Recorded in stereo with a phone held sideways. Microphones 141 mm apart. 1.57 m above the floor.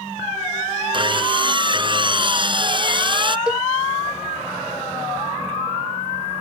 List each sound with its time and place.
0.9 s sawing: 35° right (ahead or behind)
3.5 s a cowbell: 5° right (ahead or behind)